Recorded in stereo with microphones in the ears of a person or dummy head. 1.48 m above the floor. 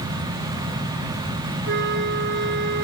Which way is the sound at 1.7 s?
60° right (ahead or behind).